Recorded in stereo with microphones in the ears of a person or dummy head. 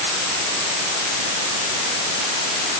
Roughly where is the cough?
I don't hear a cough.